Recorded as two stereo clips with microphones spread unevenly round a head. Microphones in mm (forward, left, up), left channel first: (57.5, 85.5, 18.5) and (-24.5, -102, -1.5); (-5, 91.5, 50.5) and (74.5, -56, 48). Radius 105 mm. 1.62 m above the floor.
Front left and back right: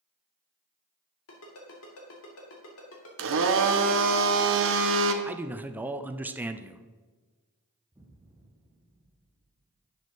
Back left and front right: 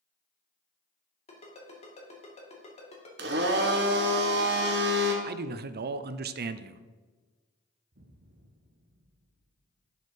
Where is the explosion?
35° right, 0.9 m.